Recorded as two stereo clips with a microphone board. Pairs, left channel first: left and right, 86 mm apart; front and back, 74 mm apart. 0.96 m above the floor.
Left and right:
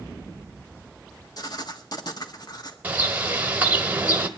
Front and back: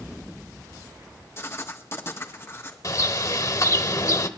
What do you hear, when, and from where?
1.4 s writing: 55° left, 1.4 m
2.8 s a bird: 20° right, 1.2 m